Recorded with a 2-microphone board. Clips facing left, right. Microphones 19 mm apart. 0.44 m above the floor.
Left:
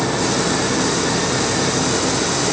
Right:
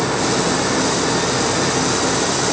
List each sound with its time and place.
Only background noise.